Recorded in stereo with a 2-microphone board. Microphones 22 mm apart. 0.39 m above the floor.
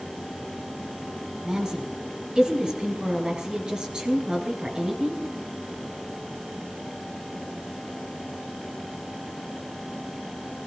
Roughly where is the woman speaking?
Right.